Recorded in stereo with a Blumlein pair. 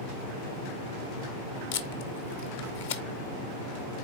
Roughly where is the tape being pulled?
Ahead left.